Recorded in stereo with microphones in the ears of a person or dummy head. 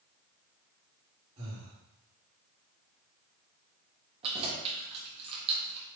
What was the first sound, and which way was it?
Breathing, 35° right (ahead or behind).